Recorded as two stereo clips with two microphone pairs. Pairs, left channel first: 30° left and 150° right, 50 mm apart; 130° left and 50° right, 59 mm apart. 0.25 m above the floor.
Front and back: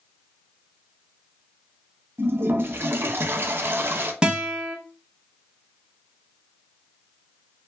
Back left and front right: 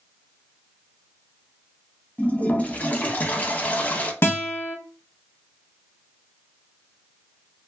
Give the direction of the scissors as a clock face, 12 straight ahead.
No scissors in this recording.